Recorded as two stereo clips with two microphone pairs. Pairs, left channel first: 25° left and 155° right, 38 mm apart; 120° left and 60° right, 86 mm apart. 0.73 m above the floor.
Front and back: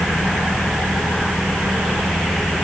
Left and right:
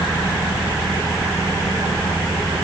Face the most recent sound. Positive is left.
No sound to turn to.